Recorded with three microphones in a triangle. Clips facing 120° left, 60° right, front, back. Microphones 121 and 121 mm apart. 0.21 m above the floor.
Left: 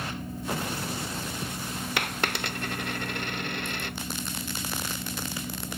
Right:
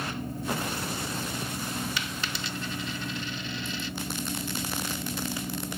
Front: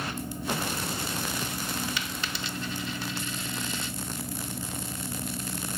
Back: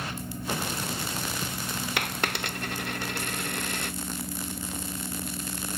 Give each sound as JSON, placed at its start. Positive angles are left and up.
{"t": 2.0, "sound": "a dropped coin", "azimuth_deg": 150}